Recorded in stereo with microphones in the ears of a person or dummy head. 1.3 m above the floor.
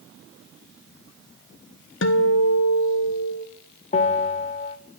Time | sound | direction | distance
2.0 | a guitar | 65° left (ahead or behind) | 1.1 m
3.9 | a bell | 40° left (ahead or behind) | 1.2 m